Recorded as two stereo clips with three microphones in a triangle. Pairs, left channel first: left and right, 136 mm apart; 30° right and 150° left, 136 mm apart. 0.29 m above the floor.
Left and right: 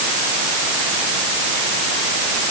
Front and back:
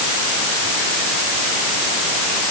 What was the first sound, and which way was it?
Only background noise.